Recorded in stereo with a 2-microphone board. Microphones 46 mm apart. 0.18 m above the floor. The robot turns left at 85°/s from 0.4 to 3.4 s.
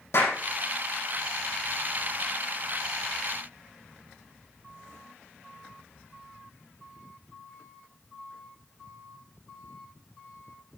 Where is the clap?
75° left (ahead or behind), 8 m.